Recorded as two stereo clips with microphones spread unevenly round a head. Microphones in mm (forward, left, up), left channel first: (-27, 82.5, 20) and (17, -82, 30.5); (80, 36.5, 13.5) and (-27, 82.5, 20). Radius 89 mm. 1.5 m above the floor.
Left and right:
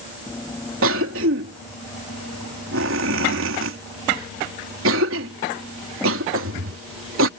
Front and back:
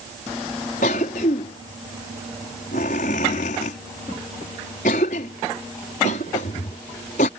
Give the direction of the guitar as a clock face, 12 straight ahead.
No guitar in this recording.